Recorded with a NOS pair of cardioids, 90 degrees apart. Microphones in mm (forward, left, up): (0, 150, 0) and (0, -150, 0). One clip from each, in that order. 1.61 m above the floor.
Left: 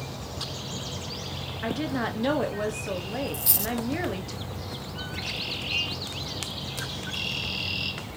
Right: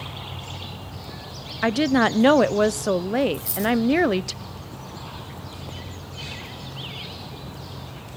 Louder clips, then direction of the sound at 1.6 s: Right 10 dB; 60° right.